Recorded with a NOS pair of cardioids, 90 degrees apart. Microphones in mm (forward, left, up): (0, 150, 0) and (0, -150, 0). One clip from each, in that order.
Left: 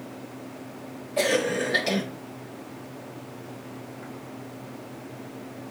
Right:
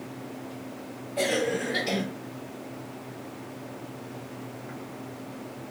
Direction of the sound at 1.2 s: 60° left.